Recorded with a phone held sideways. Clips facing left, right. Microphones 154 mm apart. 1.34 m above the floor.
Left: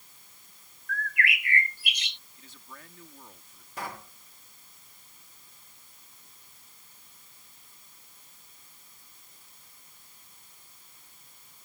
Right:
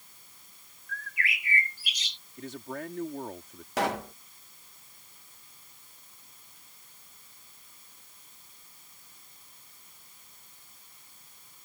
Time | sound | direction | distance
0.9 | a bird | 60° left (ahead or behind) | ?
2.4 | a man speaking | 65° right (ahead or behind) | ?
3.8 | a pop | 70° right (ahead or behind) | ?